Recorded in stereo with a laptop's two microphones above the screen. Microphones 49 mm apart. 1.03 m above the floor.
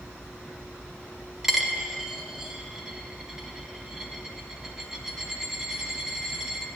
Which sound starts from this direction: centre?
A dropped coin, at 1.4 s.